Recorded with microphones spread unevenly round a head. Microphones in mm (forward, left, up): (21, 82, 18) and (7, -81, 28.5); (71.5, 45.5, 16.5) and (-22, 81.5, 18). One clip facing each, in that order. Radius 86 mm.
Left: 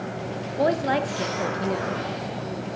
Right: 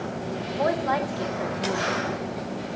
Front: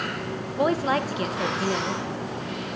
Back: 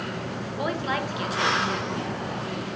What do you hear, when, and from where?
0.6 s a woman speaking: 30° left, 0.7 m